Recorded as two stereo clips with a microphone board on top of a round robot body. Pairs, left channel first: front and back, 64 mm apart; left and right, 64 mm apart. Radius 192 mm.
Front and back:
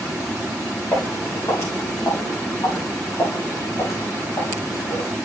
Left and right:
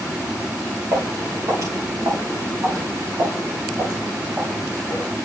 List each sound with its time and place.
0.9 s footsteps: 55° right, 7 m; by 5.1 s 35° right, 5.5 m